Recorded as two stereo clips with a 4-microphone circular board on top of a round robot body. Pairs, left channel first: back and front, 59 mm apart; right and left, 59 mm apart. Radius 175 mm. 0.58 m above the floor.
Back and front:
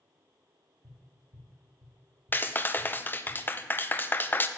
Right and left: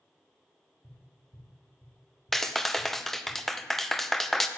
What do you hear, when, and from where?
0.8 s tapping: 20° right, 1.6 m
2.3 s a clap: 175° right, 0.5 m